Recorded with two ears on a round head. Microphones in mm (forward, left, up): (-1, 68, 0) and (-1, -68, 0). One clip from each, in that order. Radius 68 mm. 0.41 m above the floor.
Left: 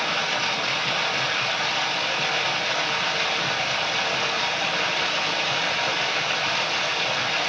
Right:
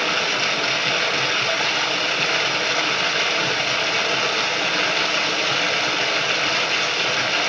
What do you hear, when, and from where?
0.0 s running water: 35° right (ahead or behind), 2 m